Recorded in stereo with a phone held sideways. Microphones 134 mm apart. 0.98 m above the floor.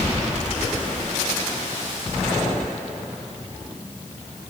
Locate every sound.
Only background noise.